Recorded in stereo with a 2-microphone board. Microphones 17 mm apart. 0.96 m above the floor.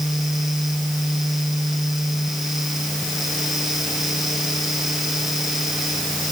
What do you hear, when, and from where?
Only background noise.